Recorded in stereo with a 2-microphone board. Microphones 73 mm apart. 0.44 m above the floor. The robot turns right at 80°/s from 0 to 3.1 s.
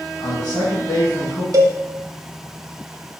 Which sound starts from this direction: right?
A cowbell, at 1.5 s.